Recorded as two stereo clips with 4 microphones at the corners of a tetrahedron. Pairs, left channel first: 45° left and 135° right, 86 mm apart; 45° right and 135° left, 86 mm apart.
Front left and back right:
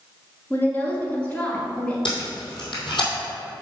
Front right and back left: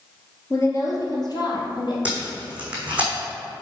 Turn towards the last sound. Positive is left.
turn(degrees=60)